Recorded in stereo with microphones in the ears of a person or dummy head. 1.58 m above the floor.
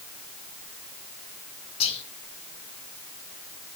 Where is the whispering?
35° left (ahead or behind), 1.0 m.